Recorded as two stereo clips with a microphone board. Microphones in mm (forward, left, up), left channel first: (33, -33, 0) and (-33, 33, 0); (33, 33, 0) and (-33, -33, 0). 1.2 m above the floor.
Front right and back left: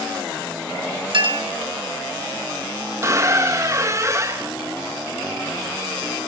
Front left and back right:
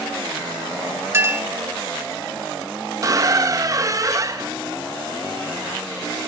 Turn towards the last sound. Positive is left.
turn(degrees=-175)